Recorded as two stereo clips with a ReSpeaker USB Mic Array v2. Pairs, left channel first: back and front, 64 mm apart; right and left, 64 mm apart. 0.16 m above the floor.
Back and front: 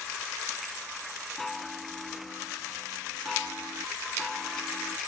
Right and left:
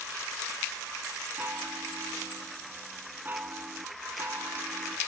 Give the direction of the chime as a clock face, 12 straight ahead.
9 o'clock.